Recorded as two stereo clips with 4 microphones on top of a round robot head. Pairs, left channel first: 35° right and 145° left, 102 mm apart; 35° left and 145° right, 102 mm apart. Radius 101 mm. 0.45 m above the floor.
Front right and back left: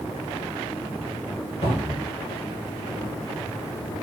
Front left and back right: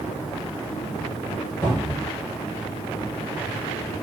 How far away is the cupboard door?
About 1.8 m.